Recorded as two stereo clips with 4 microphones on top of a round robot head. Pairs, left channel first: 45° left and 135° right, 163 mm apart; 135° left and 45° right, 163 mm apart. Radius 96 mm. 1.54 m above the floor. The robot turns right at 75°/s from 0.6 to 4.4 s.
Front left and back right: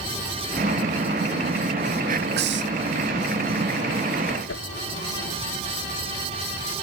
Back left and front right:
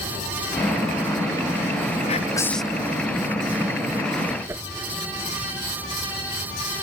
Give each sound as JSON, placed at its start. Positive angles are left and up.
{"t": 2.1, "sound": "whispering", "azimuth_deg": -175}
{"t": 4.5, "sound": "a whoosh", "azimuth_deg": 30}